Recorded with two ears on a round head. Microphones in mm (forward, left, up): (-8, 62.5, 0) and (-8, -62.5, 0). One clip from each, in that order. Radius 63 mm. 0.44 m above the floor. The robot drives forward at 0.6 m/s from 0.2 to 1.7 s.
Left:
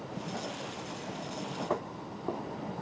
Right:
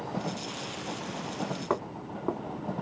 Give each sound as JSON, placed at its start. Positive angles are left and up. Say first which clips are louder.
{"t": 1.7, "sound": "footsteps", "louder": "right 3 dB", "side_deg": -25, "distance_m": 1.2}